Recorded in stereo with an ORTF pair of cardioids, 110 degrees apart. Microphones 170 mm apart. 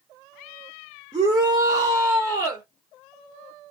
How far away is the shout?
About 1.2 m.